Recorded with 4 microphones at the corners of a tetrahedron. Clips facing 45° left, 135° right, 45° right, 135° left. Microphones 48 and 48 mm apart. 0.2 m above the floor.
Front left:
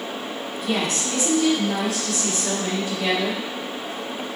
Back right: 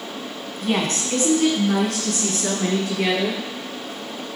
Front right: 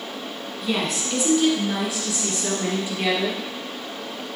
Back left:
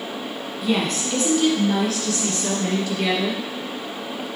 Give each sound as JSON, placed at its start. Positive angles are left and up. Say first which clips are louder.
{"t": 0.6, "sound": "a woman speaking", "louder": "back right 2 dB, back left 3 dB", "azimuth_deg": -140, "distance_m": 1.6}